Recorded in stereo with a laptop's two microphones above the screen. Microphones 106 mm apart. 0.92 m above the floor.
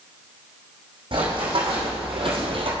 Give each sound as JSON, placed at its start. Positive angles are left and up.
{"t": 1.1, "sound": "running footsteps", "side_deg": -55, "distance_m": 3.0}